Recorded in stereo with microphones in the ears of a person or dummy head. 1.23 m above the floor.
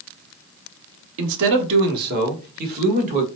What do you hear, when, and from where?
1.2 s a man speaking: 75° right (ahead or behind), 0.8 m; by 3.3 s 45° right (ahead or behind), 1.7 m